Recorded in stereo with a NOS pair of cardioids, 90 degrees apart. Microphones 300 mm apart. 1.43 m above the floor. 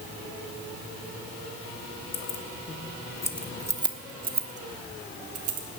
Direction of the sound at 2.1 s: 50° left.